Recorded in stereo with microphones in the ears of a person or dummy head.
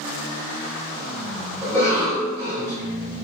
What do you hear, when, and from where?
1.6 s a cough: 10° left (ahead or behind), 1.1 m